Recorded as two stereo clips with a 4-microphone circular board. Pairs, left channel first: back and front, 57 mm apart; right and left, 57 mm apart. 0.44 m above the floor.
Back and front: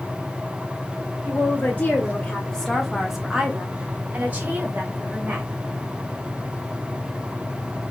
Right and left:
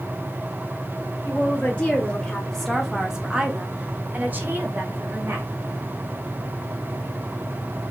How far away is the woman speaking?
About 1.3 m.